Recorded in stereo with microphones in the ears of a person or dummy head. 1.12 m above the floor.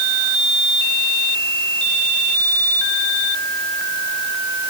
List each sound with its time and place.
Only background noise.